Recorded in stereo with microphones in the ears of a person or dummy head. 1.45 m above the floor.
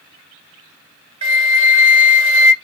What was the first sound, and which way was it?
A flute, 35° right (ahead or behind).